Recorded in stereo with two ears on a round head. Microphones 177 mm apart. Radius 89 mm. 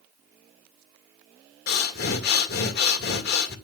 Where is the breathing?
55° left (ahead or behind), 2 m.